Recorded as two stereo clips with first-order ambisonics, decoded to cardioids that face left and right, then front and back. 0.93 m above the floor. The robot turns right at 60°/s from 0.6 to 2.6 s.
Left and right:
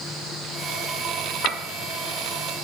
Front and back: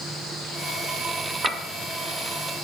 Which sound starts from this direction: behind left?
A clink, at 1.4 s.